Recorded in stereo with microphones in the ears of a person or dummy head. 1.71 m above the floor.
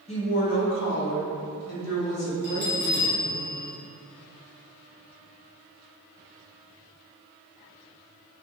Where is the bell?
25° left (ahead or behind), 1.7 m.